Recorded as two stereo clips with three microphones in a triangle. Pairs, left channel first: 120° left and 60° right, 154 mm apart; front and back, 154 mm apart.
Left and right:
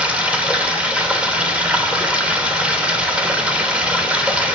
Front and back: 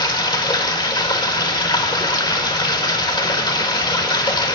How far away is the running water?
About 1.2 m.